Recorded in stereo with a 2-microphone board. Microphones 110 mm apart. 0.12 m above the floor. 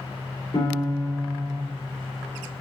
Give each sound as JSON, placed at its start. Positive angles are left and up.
{"t": 0.5, "sound": "a piano", "side_deg": 40, "distance_m": 2.0}